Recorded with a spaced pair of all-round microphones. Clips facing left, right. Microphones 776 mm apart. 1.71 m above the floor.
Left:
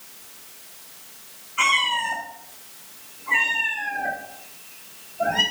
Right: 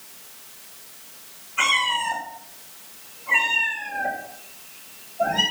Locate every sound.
1.6 s a cat meowing: 30° right (ahead or behind), 3 m; by 5.4 s 5° left (ahead or behind), 4.5 m